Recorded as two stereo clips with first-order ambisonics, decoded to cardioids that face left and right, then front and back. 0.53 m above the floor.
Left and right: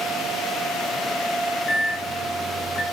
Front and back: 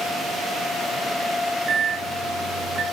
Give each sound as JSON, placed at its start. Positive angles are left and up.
{"t": 1.7, "sound": "a microwave", "azimuth_deg": 155, "distance_m": 0.6}